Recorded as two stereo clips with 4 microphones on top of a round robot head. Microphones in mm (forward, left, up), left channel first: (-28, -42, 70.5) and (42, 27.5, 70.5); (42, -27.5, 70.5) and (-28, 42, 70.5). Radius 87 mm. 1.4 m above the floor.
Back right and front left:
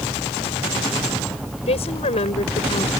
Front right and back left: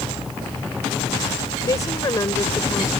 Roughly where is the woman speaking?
Right.